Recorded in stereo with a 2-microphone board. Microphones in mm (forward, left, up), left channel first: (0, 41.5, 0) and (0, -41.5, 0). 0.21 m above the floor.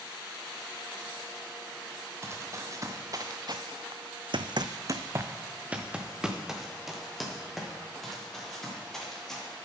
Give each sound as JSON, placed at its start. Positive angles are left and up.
{"t": 2.2, "sound": "running footsteps", "side_deg": -30, "distance_m": 1.6}